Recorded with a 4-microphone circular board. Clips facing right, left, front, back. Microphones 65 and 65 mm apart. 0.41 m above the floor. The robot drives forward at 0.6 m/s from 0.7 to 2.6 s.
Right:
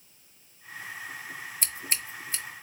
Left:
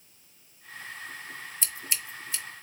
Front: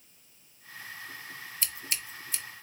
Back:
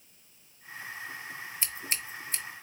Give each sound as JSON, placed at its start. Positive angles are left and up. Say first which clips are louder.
{"t": 1.6, "sound": "scissors", "louder": "right 2 dB, back 1 dB", "azimuth_deg": -120, "distance_m": 0.9}